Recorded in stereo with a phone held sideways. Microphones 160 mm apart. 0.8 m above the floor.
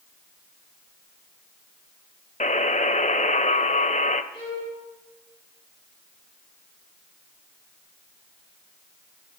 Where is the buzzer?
50° left (ahead or behind), 0.8 m.